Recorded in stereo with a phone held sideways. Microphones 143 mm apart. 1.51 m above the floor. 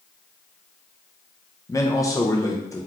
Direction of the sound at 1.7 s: 25° left (ahead or behind).